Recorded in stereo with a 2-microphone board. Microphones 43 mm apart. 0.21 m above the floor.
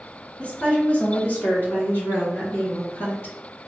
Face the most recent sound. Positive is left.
turn(degrees=60)  # may be behind; listen again after turning